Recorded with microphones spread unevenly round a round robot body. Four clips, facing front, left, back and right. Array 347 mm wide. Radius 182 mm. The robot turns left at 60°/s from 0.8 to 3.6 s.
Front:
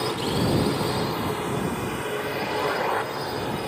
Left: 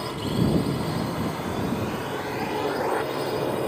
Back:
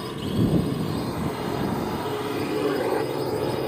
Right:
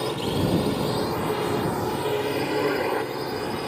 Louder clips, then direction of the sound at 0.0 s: Right 1 dB, front 1 dB; 45° right.